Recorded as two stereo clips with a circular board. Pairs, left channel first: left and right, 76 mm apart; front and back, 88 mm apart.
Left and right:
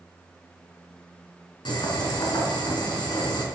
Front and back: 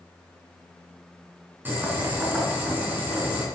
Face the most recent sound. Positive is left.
turn(degrees=110)